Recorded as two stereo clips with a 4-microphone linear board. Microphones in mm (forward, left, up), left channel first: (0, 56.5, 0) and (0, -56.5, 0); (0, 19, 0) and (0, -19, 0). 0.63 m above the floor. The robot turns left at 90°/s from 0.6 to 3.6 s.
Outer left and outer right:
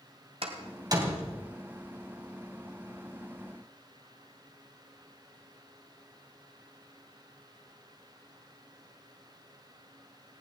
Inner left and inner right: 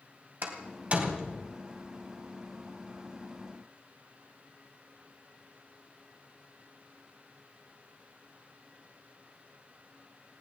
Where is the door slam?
65° right (ahead or behind), 3 m; by 1.5 s 15° left (ahead or behind), 3 m.